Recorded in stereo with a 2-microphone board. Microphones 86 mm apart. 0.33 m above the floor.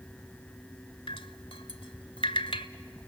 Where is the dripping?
85° left, 0.8 m.